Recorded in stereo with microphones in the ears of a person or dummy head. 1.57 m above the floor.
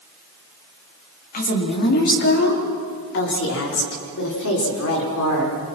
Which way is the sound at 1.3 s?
45° left (ahead or behind).